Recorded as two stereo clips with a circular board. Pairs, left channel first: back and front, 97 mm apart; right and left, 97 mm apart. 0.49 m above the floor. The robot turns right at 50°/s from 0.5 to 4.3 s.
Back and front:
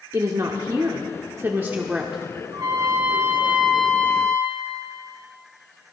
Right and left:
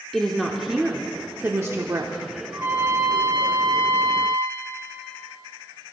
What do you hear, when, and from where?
0.1 s a woman speaking: 5° right, 0.9 m; by 2.2 s 80° left, 0.9 m
2.5 s a trumpet: 30° left, 1.9 m; by 4.6 s 120° left, 1.9 m